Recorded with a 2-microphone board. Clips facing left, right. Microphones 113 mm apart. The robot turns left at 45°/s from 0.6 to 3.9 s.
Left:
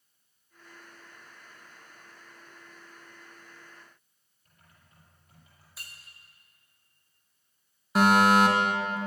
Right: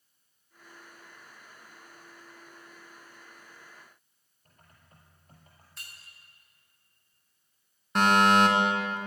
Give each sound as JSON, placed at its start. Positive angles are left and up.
{"t": 4.5, "sound": "typing on a keyboard", "side_deg": -45, "distance_m": 5.5}
{"t": 5.8, "sound": "breaking glass", "side_deg": 5, "distance_m": 6.0}
{"t": 8.0, "sound": "a fire alarm", "side_deg": 5, "distance_m": 2.5}